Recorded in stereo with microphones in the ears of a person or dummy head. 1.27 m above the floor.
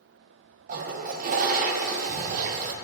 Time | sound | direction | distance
0.7 | a toilet flushing | 45° right (ahead or behind) | 0.6 m